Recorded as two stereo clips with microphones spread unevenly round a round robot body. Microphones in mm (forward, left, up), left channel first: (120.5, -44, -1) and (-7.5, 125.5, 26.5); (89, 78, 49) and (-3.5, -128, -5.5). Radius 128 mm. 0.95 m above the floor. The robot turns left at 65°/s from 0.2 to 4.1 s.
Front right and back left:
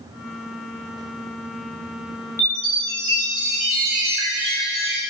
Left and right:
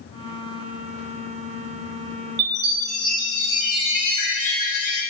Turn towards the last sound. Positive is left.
turn(degrees=110)